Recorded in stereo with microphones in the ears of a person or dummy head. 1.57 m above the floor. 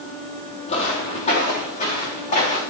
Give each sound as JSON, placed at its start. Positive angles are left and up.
{"t": 0.7, "sound": "footsteps", "side_deg": 30, "distance_m": 3.0}